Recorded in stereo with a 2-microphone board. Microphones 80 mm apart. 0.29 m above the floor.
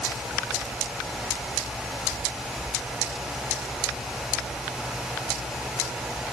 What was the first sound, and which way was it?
Only background noise.